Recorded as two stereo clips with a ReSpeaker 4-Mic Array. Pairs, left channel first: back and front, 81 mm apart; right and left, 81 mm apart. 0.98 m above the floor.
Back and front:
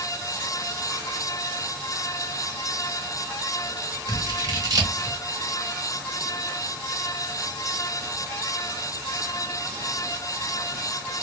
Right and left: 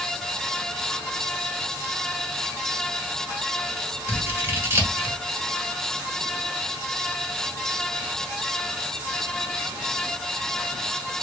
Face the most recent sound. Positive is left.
turn(degrees=30)